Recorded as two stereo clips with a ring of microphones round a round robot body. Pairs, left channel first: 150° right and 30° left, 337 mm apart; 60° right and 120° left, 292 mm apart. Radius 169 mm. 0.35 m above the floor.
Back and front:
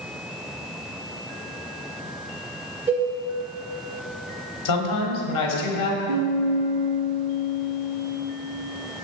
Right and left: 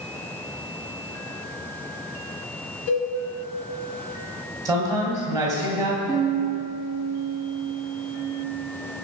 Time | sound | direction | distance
2.9 | a cowbell | 55° right | 2.5 m
4.7 | a man speaking | 165° right | 1.8 m
6.1 | a piano | 15° left | 1.9 m